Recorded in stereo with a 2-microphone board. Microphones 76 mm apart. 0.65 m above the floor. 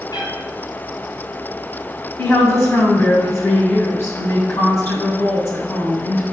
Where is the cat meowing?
70° left (ahead or behind), 2 m.